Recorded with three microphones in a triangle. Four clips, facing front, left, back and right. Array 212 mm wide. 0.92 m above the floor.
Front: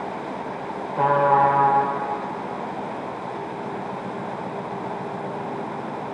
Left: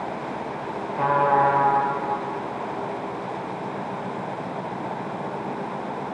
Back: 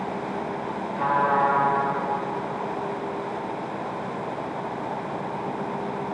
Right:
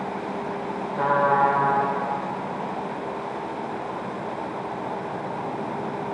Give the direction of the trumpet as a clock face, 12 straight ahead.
12 o'clock.